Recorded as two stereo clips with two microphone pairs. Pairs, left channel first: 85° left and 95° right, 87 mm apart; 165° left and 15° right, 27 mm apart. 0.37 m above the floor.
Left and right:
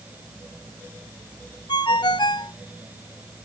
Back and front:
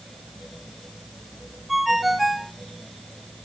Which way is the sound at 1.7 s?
70° left.